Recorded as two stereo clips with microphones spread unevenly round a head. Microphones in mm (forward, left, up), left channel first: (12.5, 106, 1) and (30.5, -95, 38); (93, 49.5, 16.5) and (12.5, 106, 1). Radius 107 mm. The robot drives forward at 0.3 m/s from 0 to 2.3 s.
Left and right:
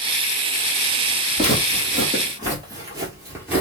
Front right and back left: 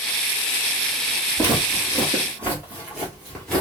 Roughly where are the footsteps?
Behind right.